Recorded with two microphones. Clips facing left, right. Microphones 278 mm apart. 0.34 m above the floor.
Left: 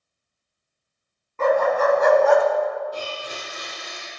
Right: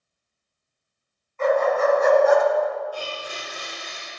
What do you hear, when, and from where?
1.4 s a dog barking: 70° left (ahead or behind), 1.4 m; by 2.5 s 65° left (ahead or behind), 0.9 m
2.9 s a blender: 45° left (ahead or behind), 3.5 m